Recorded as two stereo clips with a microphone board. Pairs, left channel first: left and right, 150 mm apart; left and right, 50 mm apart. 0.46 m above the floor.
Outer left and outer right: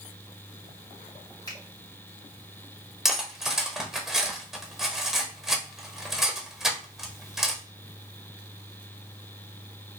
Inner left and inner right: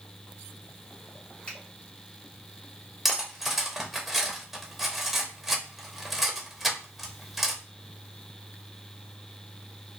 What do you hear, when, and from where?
1.5 s a finger snap: 25° left (ahead or behind), 2.5 m
3.0 s cutlery clinking: 5° right (ahead or behind), 0.9 m